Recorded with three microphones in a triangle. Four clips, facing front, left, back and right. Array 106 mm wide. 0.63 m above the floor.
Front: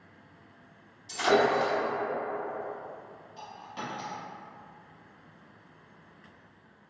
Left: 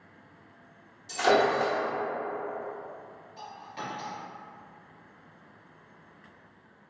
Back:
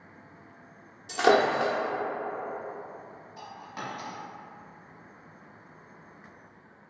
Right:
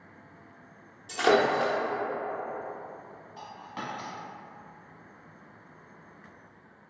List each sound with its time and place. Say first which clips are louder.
1.1 s breaking glass: even, back 2 dB; 170° right, 0.8 m
3.4 s a dropped coin: even, even; 105° right, 1.1 m